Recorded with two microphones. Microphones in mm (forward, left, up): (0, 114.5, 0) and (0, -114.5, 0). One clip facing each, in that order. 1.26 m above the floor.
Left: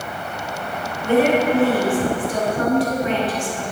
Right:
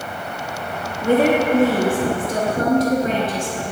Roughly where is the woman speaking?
Right.